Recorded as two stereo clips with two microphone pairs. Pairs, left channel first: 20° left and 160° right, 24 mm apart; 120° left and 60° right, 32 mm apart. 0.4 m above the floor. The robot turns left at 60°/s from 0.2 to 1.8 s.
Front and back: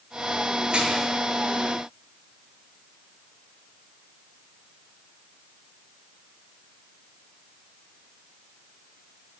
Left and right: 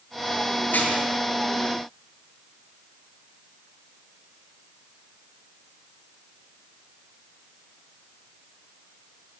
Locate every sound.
0.7 s dishes clattering: 150° left, 5.5 m; by 1.1 s 130° left, 5.5 m